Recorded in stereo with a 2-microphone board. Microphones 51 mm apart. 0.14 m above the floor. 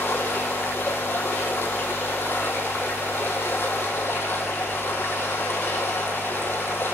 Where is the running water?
45° left (ahead or behind), 2.5 m.